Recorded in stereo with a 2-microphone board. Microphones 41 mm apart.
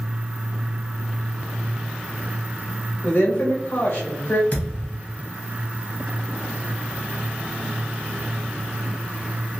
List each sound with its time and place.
3.0 s a woman speaking: 50° left (ahead or behind), 1.6 m
4.5 s a thud: 35° left (ahead or behind), 1.0 m